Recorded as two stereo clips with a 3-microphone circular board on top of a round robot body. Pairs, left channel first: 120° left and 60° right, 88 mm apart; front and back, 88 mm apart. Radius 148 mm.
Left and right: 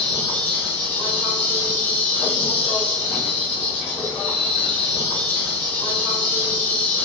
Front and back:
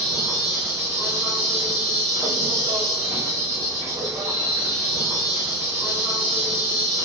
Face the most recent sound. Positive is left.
turn(degrees=125)